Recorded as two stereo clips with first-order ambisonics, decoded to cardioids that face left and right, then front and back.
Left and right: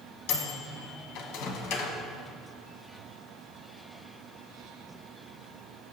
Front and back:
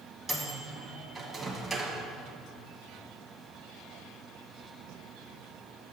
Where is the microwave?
90° left, 1.2 m.